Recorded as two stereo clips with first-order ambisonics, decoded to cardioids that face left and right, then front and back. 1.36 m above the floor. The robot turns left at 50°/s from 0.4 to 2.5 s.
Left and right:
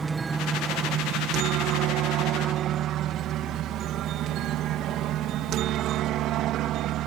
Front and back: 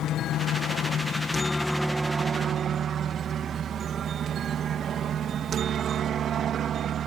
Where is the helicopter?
20° right; by 7.1 s 125° right.